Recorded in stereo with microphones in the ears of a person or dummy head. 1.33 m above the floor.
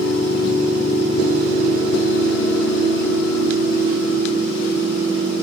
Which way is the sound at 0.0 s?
50° left (ahead or behind).